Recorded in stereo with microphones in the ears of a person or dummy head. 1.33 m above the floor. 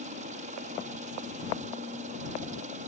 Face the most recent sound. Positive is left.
turn(degrees=-40)  # may be behind; listen again after turning